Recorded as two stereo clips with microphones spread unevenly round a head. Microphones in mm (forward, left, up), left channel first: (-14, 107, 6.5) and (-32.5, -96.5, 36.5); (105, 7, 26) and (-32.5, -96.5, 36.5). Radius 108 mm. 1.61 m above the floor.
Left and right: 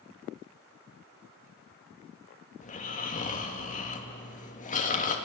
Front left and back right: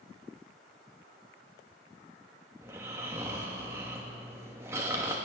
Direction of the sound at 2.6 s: 140° left.